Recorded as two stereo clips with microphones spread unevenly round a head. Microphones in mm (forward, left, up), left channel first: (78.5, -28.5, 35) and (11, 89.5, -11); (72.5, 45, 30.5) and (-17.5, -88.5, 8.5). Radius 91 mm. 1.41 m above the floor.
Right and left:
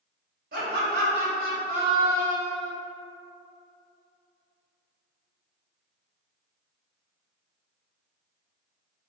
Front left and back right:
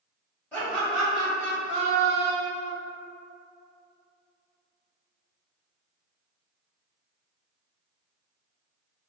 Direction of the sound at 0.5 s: 140° left.